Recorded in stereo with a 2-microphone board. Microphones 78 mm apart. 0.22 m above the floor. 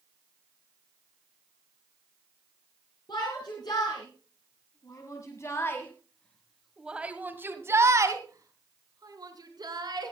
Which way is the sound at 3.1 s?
65° left (ahead or behind).